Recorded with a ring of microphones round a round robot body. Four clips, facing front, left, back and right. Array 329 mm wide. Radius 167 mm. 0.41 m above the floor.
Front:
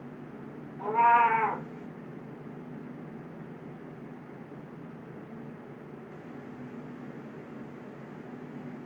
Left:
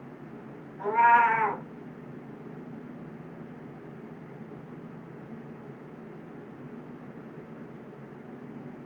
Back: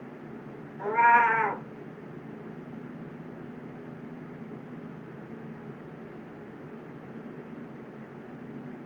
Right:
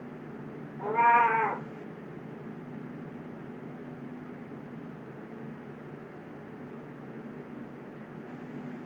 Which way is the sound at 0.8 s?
155° left.